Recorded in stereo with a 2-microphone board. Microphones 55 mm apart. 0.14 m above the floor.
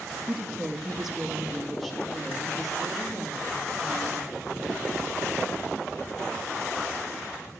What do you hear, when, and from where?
0.3 s a woman speaking: 5° right (ahead or behind), 2 m